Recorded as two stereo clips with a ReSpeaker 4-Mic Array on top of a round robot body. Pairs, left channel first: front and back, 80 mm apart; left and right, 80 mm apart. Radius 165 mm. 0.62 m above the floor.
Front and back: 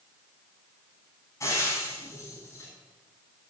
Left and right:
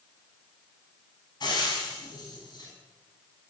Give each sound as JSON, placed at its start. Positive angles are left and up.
{"t": 1.4, "sound": "frying", "azimuth_deg": 55, "distance_m": 5.5}